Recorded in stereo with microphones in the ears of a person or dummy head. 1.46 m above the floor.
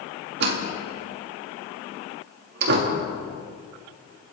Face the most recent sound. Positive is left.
turn(degrees=-55)  # may be behind; listen again after turning